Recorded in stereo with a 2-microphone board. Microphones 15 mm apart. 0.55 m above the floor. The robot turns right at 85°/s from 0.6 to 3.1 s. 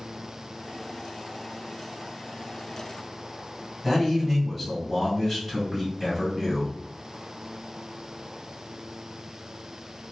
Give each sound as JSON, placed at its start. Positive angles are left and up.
{"t": 3.8, "sound": "a man speaking", "side_deg": 0, "distance_m": 1.8}